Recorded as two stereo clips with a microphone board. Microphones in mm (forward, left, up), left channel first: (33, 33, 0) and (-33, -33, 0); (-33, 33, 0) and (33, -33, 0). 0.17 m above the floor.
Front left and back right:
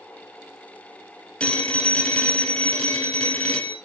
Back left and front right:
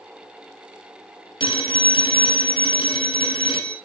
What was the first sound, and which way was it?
A phone ringing, 120° left.